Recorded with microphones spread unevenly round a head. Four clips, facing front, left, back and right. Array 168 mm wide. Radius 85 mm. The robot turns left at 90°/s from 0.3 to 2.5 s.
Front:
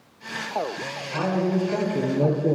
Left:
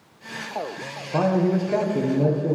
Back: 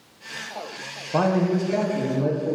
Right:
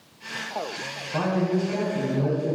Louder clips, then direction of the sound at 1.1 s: Left 4 dB, back 3 dB; 150° left.